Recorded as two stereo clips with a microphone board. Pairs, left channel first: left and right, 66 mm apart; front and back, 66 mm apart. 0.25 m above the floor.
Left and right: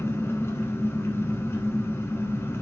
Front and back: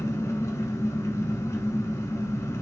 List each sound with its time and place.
0.0 s an engine running: 35° left, 0.8 m